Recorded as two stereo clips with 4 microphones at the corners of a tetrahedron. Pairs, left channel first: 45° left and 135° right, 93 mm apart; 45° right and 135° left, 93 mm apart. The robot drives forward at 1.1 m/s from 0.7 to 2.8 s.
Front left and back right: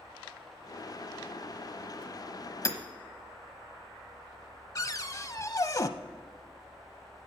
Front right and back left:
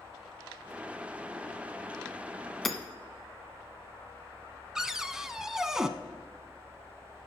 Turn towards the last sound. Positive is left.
turn(degrees=55)